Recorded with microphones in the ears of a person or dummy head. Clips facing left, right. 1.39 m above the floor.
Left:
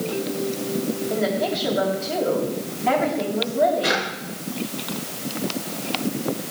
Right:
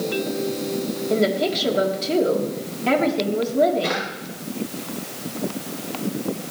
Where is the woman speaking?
45° right (ahead or behind), 3.5 m.